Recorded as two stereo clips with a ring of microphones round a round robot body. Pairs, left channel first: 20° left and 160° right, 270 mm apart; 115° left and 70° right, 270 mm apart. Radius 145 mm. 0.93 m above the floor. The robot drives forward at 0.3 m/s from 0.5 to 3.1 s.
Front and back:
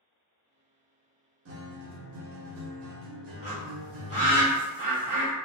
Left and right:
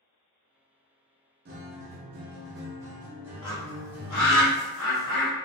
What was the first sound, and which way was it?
A guitar, 120° right.